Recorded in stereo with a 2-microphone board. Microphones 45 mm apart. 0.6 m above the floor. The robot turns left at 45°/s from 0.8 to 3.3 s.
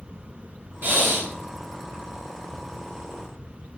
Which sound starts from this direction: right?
Breathing, at 0.8 s.